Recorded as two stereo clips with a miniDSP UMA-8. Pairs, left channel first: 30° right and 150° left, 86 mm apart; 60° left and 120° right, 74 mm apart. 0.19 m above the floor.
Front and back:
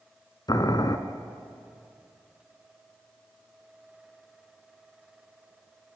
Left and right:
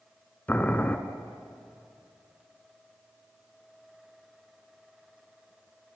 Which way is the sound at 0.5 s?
5° right.